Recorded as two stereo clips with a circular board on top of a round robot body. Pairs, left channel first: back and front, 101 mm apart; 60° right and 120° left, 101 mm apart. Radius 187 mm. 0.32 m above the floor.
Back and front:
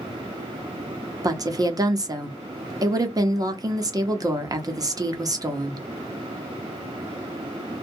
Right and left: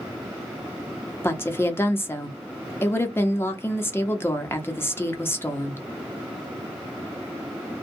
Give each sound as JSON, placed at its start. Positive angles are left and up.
{"t": 1.2, "sound": "a woman speaking", "azimuth_deg": -10, "distance_m": 1.0}